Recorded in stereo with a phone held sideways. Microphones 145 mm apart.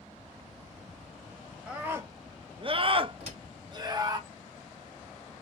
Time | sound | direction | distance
1.7 | a scream | 10° right (ahead or behind) | 1.0 m
3.2 | a door slam | 50° right (ahead or behind) | 2.5 m